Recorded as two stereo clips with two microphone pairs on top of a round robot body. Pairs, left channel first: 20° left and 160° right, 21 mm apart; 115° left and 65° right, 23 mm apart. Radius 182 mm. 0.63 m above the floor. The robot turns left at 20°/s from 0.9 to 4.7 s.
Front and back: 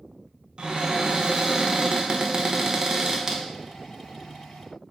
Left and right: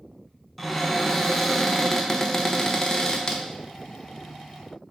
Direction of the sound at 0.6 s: 165° right.